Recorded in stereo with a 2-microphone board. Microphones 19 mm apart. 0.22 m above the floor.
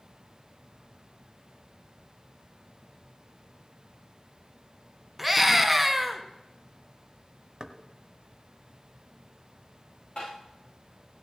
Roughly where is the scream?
Centre.